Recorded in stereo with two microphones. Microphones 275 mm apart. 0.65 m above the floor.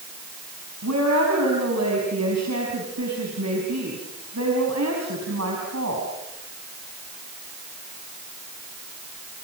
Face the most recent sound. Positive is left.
turn(degrees=-75)  # may be behind; listen again after turning